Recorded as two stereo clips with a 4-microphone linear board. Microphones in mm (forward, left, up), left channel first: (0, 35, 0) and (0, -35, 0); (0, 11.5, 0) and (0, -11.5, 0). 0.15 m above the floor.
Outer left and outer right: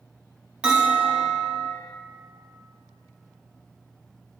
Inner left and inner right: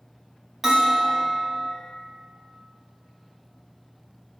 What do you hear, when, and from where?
0.6 s a bell: 15° right (ahead or behind), 3.5 m